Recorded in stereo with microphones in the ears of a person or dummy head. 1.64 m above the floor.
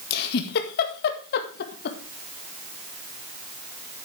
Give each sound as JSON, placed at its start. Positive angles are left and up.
{"t": 0.1, "sound": "a giggle", "side_deg": 60, "distance_m": 1.6}